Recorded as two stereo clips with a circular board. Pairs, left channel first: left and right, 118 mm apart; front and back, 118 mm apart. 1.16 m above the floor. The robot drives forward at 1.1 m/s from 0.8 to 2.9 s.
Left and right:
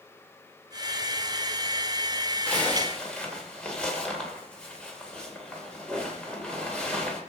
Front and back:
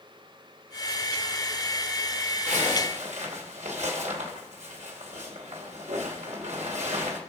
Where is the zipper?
170° left, 2 m.